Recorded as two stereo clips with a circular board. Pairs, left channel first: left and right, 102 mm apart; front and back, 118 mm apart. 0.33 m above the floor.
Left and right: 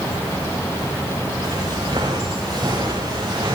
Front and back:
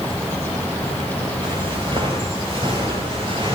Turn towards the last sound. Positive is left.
turn(degrees=-140)